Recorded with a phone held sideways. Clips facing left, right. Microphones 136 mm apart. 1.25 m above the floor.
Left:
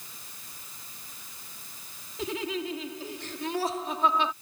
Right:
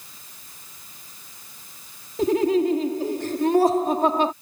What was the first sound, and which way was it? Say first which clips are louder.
Laughter: right 13 dB; 50° right (ahead or behind).